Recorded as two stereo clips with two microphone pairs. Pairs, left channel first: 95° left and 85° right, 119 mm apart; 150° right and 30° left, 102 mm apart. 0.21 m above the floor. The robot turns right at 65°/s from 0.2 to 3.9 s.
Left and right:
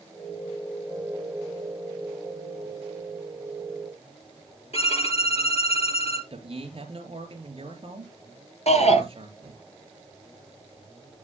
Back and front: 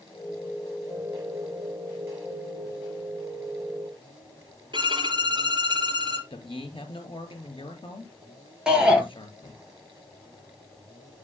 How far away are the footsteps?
No footsteps in this recording.